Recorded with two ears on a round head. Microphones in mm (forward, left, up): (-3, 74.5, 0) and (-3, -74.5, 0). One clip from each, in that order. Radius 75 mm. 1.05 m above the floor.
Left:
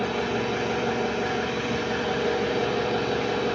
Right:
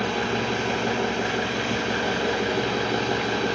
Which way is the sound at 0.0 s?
35° right (ahead or behind).